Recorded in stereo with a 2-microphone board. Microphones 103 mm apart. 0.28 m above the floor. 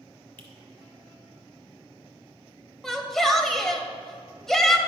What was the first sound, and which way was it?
A finger snap, 20° left (ahead or behind).